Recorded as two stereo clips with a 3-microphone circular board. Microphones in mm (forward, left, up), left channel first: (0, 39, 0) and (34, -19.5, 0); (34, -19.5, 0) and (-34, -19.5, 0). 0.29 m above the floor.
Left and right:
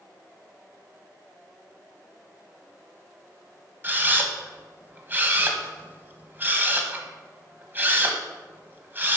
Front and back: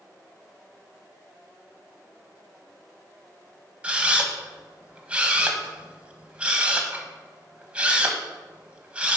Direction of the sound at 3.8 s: 110° right.